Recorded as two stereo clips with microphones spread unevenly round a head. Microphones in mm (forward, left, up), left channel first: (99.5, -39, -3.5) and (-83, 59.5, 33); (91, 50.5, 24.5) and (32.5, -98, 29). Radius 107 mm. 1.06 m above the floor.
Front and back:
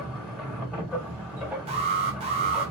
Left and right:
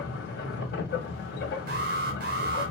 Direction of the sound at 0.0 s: 70° left.